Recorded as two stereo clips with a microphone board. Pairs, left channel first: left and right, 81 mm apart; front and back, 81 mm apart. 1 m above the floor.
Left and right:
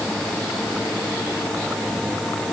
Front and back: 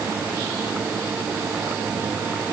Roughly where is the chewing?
I don't hear chewing.